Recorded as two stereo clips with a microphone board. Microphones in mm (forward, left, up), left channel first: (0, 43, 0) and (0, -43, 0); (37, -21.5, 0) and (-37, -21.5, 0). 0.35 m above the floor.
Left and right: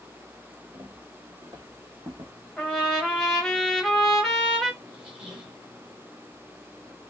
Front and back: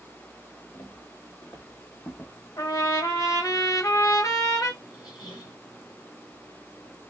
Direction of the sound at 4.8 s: 15° right.